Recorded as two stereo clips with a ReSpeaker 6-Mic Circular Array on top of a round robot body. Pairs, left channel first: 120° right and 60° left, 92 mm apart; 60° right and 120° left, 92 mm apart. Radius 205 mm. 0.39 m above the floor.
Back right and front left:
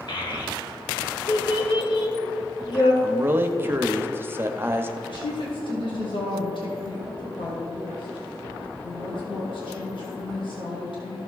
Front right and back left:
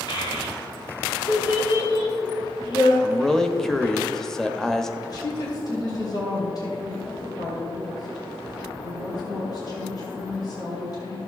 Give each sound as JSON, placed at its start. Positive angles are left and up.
{"t": 0.1, "sound": "a child speaking", "azimuth_deg": -90, "distance_m": 2.0}
{"t": 3.0, "sound": "a man speaking", "azimuth_deg": 20, "distance_m": 1.1}
{"t": 5.0, "sound": "a woman speaking", "azimuth_deg": -100, "distance_m": 3.0}